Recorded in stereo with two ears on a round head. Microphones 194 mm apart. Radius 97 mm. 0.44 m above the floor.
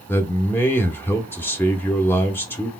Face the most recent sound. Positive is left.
turn(degrees=10)  # may be behind; listen again after turning